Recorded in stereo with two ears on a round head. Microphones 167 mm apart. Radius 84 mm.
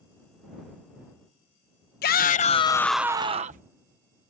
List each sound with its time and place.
2.0 s a shout: 55° left (ahead or behind); by 3.7 s 45° right (ahead or behind)